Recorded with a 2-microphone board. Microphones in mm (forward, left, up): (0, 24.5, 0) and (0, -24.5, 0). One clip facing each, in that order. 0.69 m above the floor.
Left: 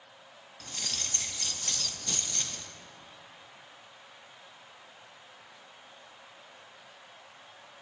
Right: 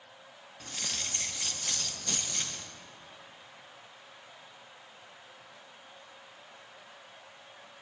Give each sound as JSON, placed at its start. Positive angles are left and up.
{"t": 0.6, "sound": "keys jangling", "side_deg": -15, "distance_m": 0.6}